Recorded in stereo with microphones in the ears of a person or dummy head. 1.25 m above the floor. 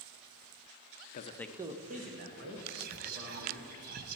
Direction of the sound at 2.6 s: 55° right (ahead or behind).